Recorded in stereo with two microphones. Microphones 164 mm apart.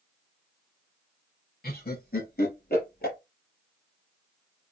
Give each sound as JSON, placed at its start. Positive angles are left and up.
{"t": 1.6, "sound": "laughter", "side_deg": 65, "distance_m": 3.5}